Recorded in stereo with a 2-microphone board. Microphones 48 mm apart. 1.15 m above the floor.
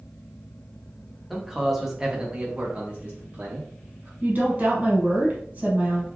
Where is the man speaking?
5° left (ahead or behind), 0.9 m; by 4.1 s 35° right (ahead or behind), 1.2 m.